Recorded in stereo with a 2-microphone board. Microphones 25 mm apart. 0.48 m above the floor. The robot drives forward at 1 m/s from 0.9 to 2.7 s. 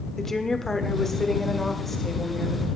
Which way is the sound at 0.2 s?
10° left (ahead or behind).